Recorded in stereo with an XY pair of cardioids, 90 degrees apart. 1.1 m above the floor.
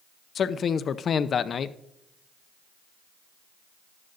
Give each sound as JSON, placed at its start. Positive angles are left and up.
{"t": 0.3, "sound": "a man speaking", "azimuth_deg": 55, "distance_m": 0.6}